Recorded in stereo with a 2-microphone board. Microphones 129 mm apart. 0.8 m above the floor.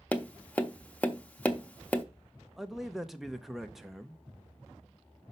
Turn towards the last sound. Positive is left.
turn(degrees=0)  # may be behind; listen again after turning